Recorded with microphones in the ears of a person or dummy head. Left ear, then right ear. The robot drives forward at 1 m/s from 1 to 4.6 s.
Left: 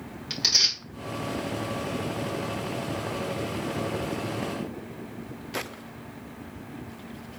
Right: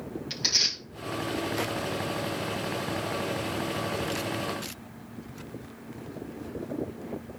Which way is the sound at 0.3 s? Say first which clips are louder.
Left 3 dB; 10° left (ahead or behind).